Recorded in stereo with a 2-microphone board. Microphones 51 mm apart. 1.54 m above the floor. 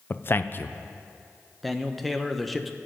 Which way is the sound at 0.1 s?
45° left (ahead or behind).